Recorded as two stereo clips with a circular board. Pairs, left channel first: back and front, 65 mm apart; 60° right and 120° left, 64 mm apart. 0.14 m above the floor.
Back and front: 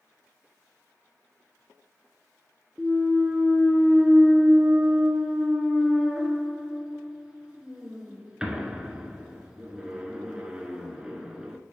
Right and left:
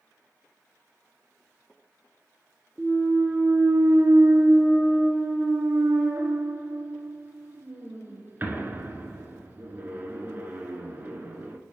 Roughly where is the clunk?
Left.